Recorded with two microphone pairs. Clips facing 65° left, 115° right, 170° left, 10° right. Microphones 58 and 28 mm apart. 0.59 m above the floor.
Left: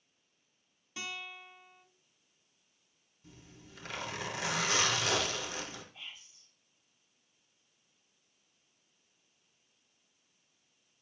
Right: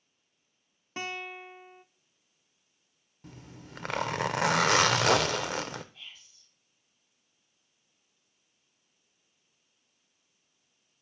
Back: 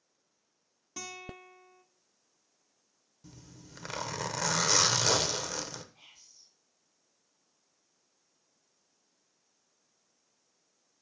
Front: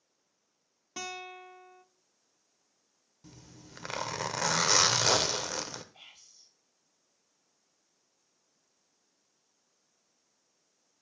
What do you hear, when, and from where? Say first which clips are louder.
1.0 s a guitar: right 6 dB, front 3 dB; 75° right, 0.6 m
3.2 s a zipper: right 7 dB, even; 85° right, 0.5 m
5.9 s whispering: left 1 dB, front 3 dB; 10° right, 2 m